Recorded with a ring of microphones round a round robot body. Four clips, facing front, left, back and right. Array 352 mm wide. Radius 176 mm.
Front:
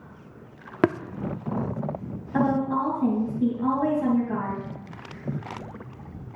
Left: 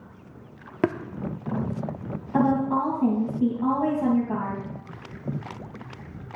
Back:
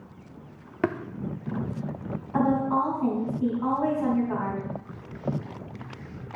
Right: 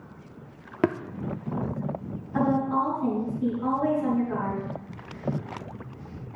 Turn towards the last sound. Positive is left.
turn(degrees=60)